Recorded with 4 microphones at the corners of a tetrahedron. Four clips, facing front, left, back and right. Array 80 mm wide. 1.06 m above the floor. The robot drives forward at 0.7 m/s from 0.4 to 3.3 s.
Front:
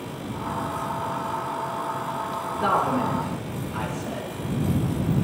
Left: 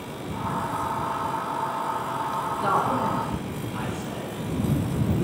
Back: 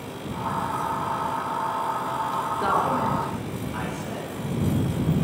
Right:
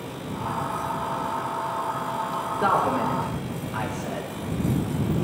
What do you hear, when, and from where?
2.6 s a man speaking: 110° right, 5 m; by 4.3 s 115° right, 5.5 m